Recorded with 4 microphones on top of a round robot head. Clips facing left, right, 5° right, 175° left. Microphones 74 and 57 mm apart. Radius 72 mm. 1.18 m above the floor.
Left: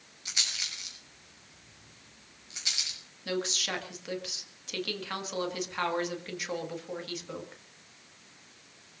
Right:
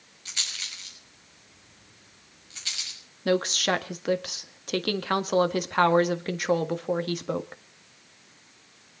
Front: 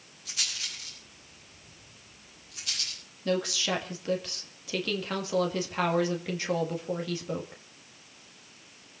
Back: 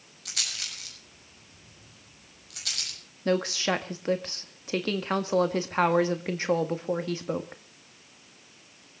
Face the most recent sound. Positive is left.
turn(degrees=-130)